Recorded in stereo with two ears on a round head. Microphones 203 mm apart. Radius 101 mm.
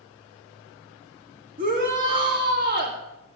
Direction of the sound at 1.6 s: 40° right (ahead or behind).